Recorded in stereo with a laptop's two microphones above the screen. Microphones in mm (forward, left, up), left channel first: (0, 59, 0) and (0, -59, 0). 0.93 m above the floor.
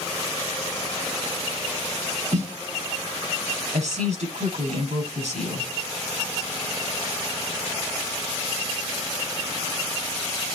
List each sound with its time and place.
2.3 s a snare drum: 85° right, 5 m
3.7 s a woman speaking: 80° right, 6.5 m